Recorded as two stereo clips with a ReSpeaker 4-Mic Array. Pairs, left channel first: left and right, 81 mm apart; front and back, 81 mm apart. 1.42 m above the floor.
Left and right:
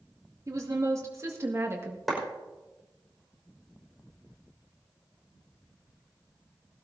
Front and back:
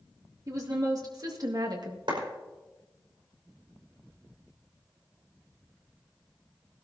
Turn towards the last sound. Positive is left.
turn(degrees=180)